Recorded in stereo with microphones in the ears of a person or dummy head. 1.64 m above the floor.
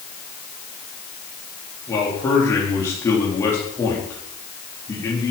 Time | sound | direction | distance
1.9 | a man speaking | 15° left (ahead or behind) | 3.5 m